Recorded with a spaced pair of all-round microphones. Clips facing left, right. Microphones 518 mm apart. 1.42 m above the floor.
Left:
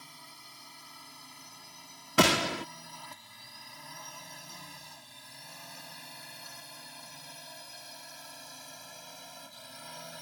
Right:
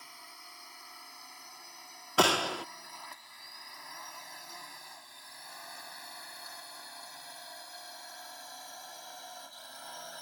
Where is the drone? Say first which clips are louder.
Left 2 dB; 55° left (ahead or behind); by 10.2 s 50° left (ahead or behind).